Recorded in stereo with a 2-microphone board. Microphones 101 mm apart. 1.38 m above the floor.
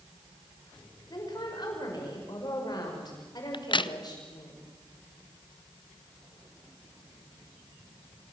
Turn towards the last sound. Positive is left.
turn(degrees=55)  # may be behind; listen again after turning